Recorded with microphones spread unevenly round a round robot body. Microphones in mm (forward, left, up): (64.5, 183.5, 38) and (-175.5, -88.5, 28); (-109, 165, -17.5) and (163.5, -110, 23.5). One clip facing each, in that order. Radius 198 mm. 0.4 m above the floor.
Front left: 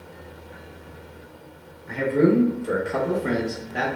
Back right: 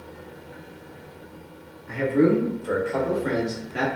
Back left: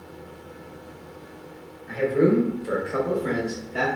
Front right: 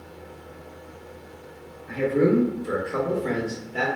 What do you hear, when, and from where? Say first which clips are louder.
1.9 s a man speaking: even, even; 30° left, 1.2 m; by 3.9 s 170° right, 0.9 m